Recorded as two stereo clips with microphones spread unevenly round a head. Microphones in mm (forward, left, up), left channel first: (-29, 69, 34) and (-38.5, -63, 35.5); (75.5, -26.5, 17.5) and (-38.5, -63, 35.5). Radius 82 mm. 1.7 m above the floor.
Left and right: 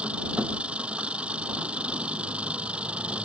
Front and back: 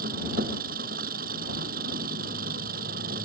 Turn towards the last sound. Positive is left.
turn(degrees=-175)